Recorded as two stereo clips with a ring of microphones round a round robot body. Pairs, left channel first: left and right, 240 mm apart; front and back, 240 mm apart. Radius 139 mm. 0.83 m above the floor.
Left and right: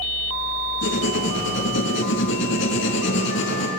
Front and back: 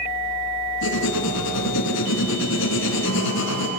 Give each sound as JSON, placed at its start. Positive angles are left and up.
{"t": 0.8, "sound": "writing", "azimuth_deg": 45, "distance_m": 4.5}